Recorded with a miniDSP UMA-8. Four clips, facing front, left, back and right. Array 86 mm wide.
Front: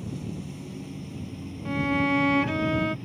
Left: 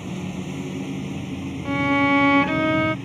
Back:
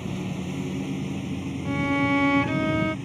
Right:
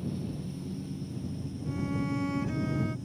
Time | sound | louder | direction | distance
0.0 | a lawn mower | left 6 dB, back 4 dB | 125° left | ?
1.6 | a violin | left 13 dB, back 1 dB | 90° left | ?